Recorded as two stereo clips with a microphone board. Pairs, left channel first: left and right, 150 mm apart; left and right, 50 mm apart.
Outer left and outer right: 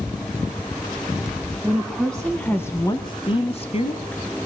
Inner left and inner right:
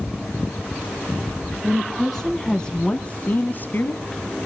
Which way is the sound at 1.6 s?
5° right (ahead or behind).